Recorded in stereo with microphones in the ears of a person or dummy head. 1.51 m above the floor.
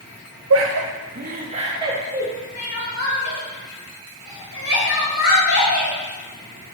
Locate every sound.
0.5 s laughter: 70° right (ahead or behind), 0.8 m; by 2.3 s 10° right (ahead or behind), 1.9 m
2.5 s crying: 80° left, 2.5 m